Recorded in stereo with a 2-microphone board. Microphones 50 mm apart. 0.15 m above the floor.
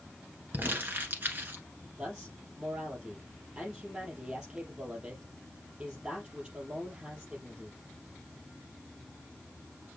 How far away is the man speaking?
About 4.5 m.